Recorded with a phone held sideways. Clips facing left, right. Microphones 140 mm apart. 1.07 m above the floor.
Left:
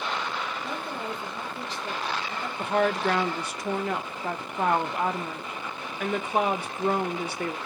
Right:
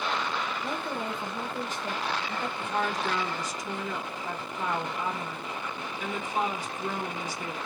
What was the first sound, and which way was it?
A woman speaking, 45° right (ahead or behind).